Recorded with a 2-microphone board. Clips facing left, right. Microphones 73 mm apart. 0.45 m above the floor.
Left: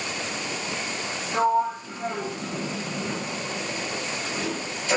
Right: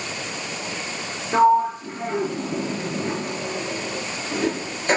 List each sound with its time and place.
1.3 s a sliding door: 55° right (ahead or behind), 3.5 m